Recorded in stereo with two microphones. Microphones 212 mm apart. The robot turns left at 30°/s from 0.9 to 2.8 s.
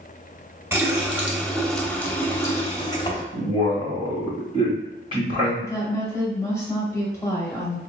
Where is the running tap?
160° right, 0.7 m; by 3.2 s 145° left, 0.7 m.